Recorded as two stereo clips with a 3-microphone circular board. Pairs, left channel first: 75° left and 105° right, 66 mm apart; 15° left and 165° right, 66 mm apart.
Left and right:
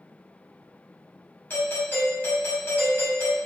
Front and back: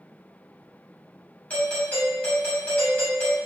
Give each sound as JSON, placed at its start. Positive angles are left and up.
{"t": 1.5, "sound": "a doorbell", "azimuth_deg": 65, "distance_m": 1.7}